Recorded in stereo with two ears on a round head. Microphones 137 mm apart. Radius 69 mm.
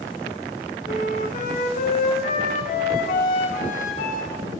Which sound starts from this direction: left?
A flute, at 0.9 s.